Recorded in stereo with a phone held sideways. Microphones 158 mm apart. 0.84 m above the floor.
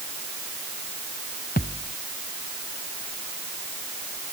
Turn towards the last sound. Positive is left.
turn(degrees=70)  # may be behind; listen again after turning